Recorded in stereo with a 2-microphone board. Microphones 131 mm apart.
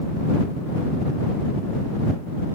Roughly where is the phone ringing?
I don't hear a phone ringing.